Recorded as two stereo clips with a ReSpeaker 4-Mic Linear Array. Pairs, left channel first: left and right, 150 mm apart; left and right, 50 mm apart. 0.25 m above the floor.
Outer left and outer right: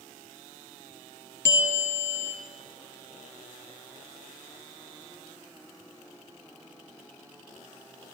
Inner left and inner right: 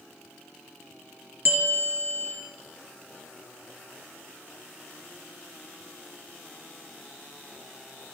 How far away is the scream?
No scream in this recording.